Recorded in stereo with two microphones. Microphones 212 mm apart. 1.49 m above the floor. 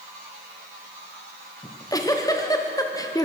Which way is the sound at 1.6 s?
15° left (ahead or behind).